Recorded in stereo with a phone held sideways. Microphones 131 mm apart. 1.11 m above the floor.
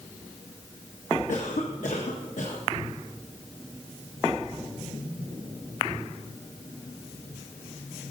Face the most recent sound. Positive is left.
turn(degrees=70)  # may be behind; listen again after turning